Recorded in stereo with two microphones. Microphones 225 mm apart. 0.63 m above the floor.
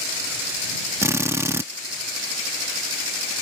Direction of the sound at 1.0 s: 10° right (ahead or behind).